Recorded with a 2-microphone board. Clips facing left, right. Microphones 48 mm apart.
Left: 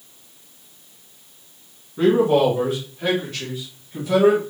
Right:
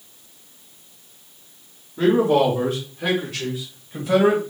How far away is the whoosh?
No whoosh in this recording.